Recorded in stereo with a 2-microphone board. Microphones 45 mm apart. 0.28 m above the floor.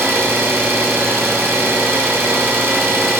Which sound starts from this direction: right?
An engine running, at 0.0 s.